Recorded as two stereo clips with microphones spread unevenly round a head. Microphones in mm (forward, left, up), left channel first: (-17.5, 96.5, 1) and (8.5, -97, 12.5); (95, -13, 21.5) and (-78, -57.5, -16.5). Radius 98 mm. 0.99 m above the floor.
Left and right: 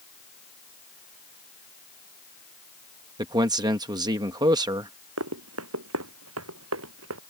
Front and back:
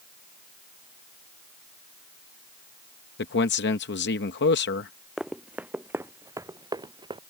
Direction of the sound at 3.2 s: 10° right.